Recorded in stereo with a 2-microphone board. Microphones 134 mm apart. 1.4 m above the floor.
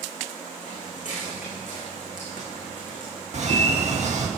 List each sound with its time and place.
0.6 s footsteps: 65° left (ahead or behind), 6 m; by 4.1 s 75° left (ahead or behind), 7.5 m
3.3 s a bird: 55° right (ahead or behind), 2.0 m